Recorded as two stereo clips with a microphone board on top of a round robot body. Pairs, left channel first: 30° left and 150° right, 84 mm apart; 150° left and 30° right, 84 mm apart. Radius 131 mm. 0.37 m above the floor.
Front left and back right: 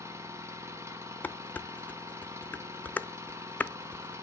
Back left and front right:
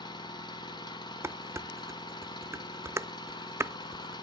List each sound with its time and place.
0.0 s an engine running: 160° left, 1.4 m
1.2 s dishes clattering: 20° right, 0.5 m